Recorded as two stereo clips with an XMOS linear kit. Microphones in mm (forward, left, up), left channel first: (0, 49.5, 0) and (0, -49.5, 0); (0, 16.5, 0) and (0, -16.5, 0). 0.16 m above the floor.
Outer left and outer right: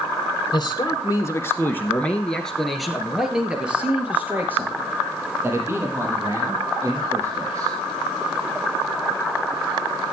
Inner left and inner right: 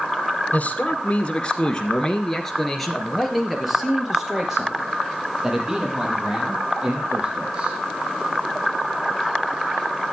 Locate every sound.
0.5 s a man speaking: 45° left (ahead or behind), 2.5 m; by 7.8 s 35° right (ahead or behind), 7 m